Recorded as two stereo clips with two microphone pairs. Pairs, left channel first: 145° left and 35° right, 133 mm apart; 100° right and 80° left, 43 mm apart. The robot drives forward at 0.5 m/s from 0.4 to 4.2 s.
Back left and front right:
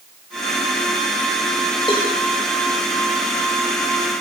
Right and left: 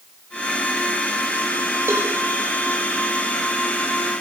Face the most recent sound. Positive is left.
turn(degrees=105)